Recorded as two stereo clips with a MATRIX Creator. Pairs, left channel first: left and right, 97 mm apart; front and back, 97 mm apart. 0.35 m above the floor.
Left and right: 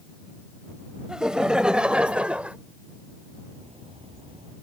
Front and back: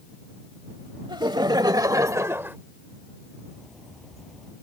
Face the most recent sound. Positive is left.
turn(degrees=-90)